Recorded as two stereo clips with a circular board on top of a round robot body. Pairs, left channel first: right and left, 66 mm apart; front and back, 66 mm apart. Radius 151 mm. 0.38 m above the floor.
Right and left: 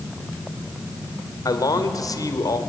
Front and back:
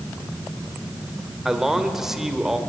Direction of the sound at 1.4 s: 95° right.